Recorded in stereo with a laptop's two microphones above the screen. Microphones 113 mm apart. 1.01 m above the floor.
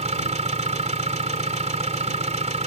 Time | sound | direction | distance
0.0 | an engine running | 85° right | ?